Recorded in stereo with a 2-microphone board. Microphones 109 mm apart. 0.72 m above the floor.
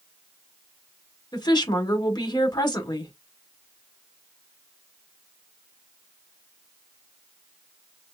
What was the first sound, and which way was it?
A woman speaking, 45° left (ahead or behind).